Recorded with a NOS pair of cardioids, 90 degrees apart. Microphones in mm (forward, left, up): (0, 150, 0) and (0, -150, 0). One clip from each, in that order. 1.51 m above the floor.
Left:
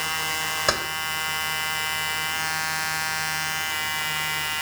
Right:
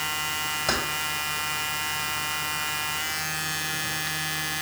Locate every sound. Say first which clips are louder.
0.7 s keys jangling: left 3 dB; 55° left, 2.5 m